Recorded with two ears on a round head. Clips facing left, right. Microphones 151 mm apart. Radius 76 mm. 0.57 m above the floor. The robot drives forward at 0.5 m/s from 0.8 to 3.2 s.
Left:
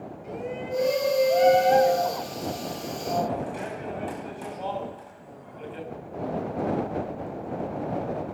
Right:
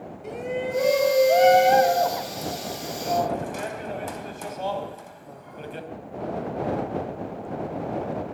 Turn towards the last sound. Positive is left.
turn(degrees=-55)  # may be behind; listen again after turning